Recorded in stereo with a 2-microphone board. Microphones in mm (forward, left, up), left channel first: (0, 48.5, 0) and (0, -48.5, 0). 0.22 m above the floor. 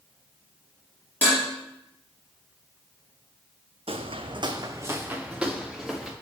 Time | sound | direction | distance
1.2 | dishes clattering | 20° left (ahead or behind) | 3.5 m
3.9 | footsteps | 75° right (ahead or behind) | 0.6 m